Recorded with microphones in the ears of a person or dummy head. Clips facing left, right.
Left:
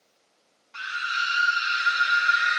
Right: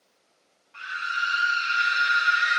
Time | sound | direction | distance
0.7 | a scream | 60° left (ahead or behind) | 1.1 m